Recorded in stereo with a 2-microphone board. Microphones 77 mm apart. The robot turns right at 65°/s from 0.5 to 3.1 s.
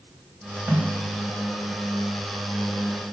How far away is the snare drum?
About 1.6 m.